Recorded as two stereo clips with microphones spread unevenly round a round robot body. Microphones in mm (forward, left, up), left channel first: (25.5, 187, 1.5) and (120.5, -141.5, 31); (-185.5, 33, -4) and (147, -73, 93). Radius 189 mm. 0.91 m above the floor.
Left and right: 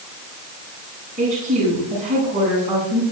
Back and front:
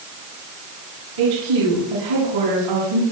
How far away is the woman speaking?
About 7 m.